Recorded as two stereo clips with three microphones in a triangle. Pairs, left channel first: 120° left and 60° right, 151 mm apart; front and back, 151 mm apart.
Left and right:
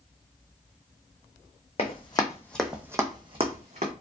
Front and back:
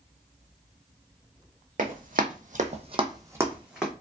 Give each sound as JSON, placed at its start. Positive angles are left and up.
{"t": 1.8, "sound": "running footsteps", "azimuth_deg": 165, "distance_m": 0.8}